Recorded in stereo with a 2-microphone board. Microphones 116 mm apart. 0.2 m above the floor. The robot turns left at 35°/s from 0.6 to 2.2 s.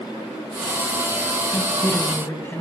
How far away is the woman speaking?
About 1.8 m.